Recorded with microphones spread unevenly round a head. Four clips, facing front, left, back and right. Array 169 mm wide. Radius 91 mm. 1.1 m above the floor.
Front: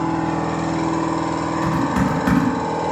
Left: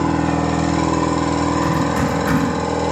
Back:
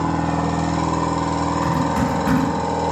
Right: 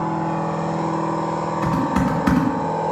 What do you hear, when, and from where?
0.0 s a machine running: 95° left, 0.9 m
1.6 s typing on a keyboard: 80° right, 1.8 m